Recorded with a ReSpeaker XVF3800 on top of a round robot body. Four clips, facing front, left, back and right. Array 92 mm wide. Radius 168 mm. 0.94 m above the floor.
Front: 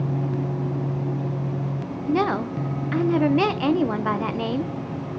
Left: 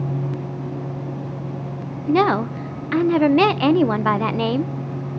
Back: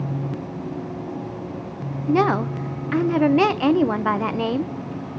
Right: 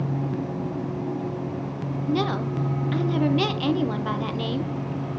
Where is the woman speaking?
105° left, 0.9 m.